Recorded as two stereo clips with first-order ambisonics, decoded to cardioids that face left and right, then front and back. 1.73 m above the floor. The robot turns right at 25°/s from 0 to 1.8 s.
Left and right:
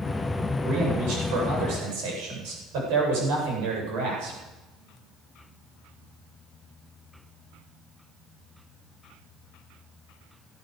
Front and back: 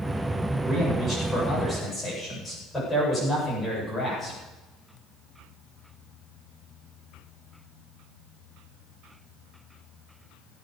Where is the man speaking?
120° right, 9 m; by 4.4 s 90° right, 9 m.